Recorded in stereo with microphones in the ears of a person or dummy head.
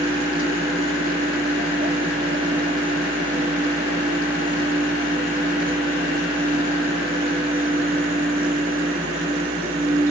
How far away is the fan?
About 1.5 m.